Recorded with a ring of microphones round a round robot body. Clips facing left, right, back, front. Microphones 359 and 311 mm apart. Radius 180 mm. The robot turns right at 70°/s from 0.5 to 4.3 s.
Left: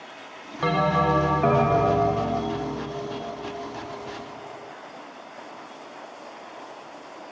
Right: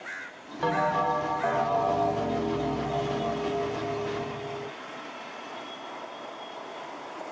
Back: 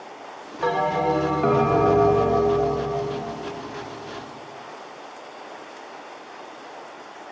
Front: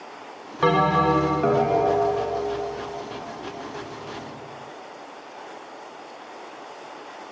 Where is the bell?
35° left; by 4.7 s 65° right.